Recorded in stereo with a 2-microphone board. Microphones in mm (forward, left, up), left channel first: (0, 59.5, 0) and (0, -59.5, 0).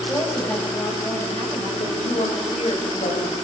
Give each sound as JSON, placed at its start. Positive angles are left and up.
{"t": 0.1, "sound": "a woman speaking", "side_deg": 15, "distance_m": 6.5}
{"t": 1.8, "sound": "a woman speaking", "side_deg": 90, "distance_m": 4.0}